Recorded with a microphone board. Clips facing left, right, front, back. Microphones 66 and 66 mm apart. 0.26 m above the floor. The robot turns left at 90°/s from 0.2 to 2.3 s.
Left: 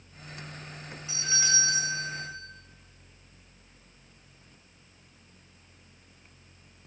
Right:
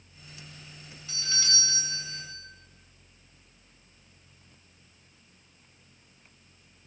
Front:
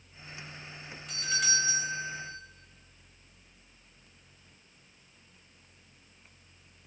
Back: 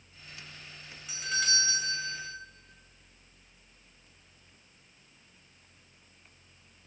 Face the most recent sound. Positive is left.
turn(degrees=-5)